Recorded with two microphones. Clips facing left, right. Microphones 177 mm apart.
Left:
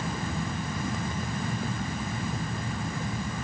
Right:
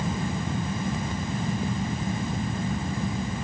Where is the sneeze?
I don't hear a sneeze.